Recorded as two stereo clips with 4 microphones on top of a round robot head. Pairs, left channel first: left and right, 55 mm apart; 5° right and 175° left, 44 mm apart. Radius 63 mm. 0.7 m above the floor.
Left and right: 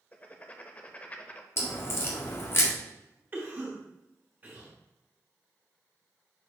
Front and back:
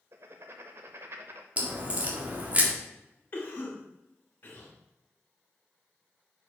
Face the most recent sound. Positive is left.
turn(degrees=-40)